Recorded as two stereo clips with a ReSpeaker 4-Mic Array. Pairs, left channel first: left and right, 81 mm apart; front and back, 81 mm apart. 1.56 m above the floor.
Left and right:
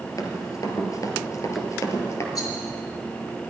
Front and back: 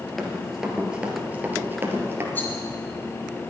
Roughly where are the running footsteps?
Left.